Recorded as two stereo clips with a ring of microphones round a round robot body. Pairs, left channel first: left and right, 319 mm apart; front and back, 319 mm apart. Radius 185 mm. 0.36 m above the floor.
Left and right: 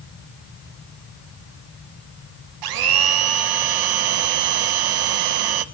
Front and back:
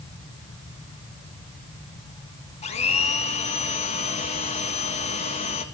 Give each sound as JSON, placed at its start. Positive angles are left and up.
{"t": 2.6, "sound": "a blender", "azimuth_deg": -75, "distance_m": 0.7}